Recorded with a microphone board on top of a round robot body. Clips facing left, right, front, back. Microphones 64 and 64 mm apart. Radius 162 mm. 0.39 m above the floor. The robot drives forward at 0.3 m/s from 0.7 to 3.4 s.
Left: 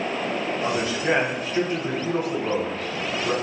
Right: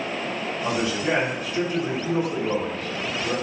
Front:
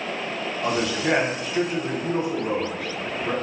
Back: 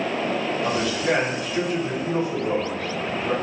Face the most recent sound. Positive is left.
turn(degrees=85)